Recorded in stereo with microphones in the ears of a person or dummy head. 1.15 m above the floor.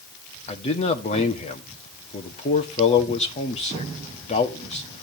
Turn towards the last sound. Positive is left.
turn(degrees=35)  # may be behind; listen again after turning